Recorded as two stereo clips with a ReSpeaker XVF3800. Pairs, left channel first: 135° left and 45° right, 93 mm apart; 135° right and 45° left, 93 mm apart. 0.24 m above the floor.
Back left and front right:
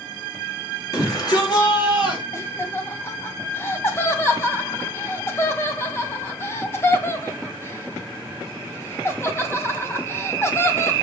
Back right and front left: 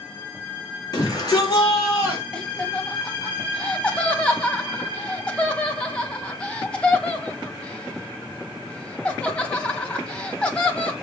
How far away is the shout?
About 5 m.